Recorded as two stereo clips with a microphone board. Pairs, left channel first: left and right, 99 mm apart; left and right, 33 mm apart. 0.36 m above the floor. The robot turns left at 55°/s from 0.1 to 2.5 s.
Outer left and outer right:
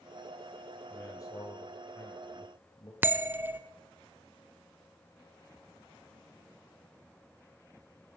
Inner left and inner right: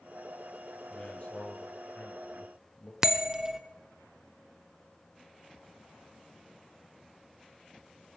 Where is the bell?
20° right (ahead or behind), 0.6 m.